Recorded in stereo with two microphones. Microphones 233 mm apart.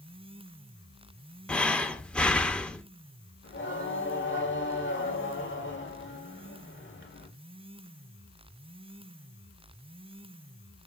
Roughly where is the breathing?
Centre.